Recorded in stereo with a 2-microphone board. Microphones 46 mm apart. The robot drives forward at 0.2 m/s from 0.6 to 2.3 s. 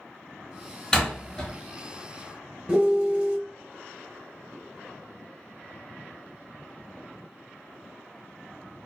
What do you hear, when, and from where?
0.9 s a door slam: 10° left (ahead or behind), 1.4 m; by 1.6 s 15° left (ahead or behind), 1.3 m
2.7 s a piano: 15° right (ahead or behind), 0.7 m